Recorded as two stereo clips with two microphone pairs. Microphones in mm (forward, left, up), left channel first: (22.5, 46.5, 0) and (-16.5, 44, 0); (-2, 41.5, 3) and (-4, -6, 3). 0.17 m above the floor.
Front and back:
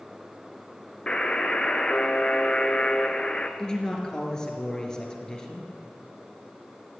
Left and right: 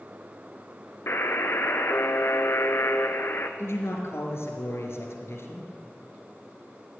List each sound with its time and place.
1.1 s a buzzer: 65° left, 1.1 m
3.6 s a man speaking: 75° left, 3 m